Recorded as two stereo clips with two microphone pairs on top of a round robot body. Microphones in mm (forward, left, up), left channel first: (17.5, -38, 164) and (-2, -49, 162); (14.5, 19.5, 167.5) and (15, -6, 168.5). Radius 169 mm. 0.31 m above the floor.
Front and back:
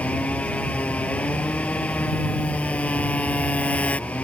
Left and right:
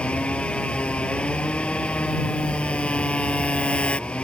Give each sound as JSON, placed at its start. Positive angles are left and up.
{"t": 0.0, "sound": "a motorcycle", "azimuth_deg": 50}